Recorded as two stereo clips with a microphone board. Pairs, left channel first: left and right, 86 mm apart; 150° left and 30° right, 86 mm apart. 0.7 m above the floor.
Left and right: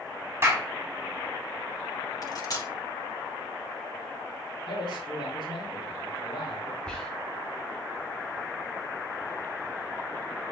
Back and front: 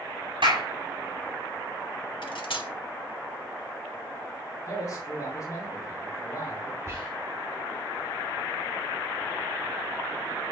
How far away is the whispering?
About 1.3 m.